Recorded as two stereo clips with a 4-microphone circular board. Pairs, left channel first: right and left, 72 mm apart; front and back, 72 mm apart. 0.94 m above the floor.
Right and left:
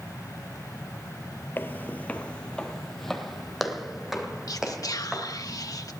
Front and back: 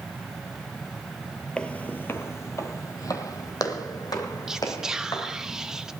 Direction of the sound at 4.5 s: 100° right.